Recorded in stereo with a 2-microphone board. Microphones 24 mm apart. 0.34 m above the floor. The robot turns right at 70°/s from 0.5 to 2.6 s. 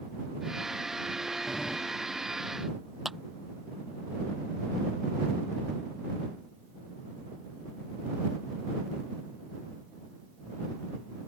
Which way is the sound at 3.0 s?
10° right (ahead or behind).